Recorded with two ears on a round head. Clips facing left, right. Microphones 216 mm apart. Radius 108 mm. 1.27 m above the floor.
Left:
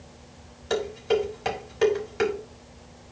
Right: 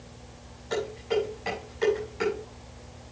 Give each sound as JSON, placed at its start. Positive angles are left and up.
{"t": 0.7, "sound": "dishes clattering", "side_deg": 80, "distance_m": 3.5}